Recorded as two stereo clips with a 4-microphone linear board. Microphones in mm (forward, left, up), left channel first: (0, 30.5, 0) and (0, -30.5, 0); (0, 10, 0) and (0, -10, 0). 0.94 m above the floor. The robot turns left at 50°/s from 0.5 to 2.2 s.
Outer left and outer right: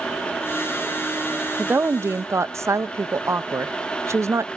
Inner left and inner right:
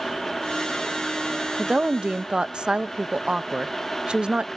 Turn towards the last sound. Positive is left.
turn(degrees=-65)